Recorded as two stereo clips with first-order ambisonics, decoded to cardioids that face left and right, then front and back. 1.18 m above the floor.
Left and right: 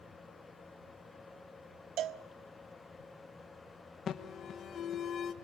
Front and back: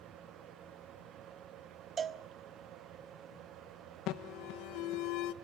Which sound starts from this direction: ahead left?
An alarm, at 4.1 s.